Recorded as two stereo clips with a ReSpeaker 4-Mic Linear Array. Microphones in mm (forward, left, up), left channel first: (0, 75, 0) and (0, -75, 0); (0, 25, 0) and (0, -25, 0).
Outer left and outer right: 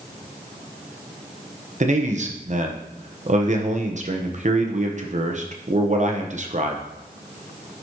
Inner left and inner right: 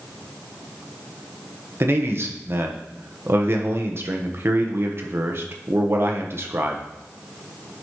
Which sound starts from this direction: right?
A man speaking, at 1.8 s.